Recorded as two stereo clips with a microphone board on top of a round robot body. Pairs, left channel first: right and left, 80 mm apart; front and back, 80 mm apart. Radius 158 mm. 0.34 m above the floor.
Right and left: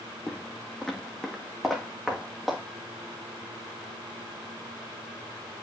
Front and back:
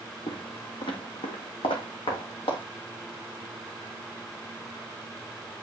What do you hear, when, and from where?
0.3 s footsteps: 20° right, 0.8 m; by 2.6 s 5° left, 2.5 m